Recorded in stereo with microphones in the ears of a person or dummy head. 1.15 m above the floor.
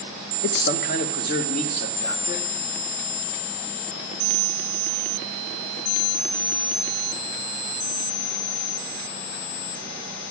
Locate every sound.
0.4 s a man speaking: 55° left (ahead or behind), 0.6 m; by 2.4 s 50° left (ahead or behind), 1.9 m